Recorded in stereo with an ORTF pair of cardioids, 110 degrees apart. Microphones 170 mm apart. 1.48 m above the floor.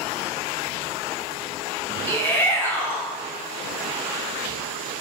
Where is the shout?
15° left, 1.3 m.